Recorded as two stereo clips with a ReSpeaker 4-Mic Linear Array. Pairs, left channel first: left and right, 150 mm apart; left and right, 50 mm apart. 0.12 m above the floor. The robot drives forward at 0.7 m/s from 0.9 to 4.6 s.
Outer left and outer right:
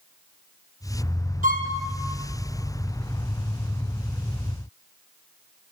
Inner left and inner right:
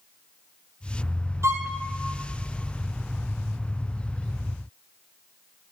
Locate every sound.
1.4 s a violin: 65° right (ahead or behind), 1.4 m; by 1.8 s 60° right (ahead or behind), 1.5 m